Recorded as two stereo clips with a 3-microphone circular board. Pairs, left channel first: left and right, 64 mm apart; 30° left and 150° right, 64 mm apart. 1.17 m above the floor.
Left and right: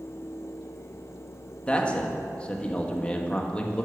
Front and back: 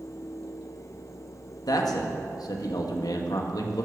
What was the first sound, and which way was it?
A man speaking, 20° left.